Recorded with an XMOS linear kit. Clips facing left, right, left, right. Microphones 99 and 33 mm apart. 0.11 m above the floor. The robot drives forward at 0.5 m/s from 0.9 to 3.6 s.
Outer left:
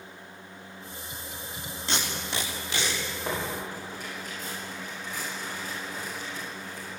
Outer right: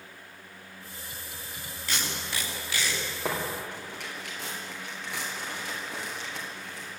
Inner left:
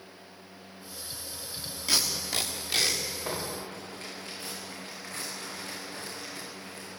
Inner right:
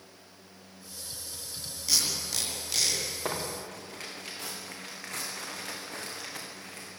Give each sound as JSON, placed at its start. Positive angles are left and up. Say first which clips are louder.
{"t": 1.9, "sound": "tape being pulled", "louder": "outer left 2 dB, inner left 1 dB", "side_deg": 25, "distance_m": 6.0}
{"t": 3.2, "sound": "tearing paper", "louder": "outer right 1 dB, even", "side_deg": -75, "distance_m": 8.0}